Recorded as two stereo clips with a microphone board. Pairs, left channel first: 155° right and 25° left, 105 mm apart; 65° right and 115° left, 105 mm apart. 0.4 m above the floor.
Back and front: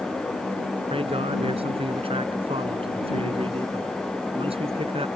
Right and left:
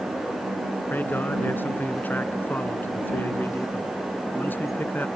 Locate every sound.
0.9 s a man speaking: 5° left